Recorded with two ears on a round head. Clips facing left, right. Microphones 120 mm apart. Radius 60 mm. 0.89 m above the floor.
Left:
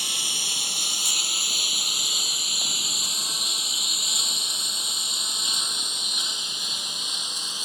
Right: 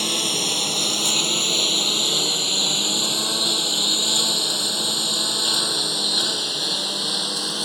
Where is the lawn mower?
50° right (ahead or behind); by 7.7 s 55° right (ahead or behind).